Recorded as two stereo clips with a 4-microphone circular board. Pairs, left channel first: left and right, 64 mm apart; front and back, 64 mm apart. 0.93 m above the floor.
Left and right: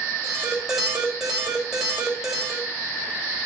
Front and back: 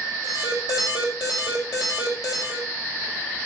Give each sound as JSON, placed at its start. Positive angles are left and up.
{"t": 0.2, "sound": "an alarm", "azimuth_deg": -10, "distance_m": 5.5}